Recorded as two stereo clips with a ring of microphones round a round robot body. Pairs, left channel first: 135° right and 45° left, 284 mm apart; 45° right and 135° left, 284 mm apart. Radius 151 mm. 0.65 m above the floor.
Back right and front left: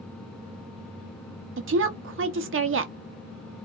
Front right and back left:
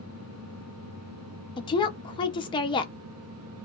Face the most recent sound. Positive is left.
turn(degrees=25)